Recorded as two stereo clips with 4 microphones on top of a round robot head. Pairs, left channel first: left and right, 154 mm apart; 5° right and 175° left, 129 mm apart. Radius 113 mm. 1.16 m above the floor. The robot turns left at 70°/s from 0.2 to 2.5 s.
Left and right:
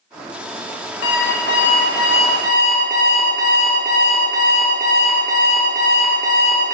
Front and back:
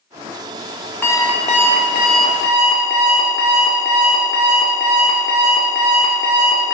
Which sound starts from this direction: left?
An alarm clock, at 1.0 s.